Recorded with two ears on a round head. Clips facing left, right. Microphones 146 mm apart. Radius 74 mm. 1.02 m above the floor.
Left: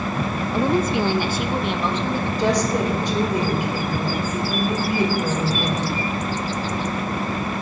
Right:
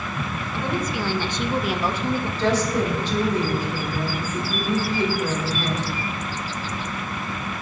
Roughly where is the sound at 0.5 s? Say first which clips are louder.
Left 7 dB; left.